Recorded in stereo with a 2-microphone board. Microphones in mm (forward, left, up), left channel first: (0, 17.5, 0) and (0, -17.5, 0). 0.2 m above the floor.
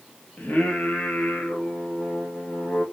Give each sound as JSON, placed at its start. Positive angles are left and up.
{"t": 0.4, "sound": "singing", "side_deg": 75, "distance_m": 1.8}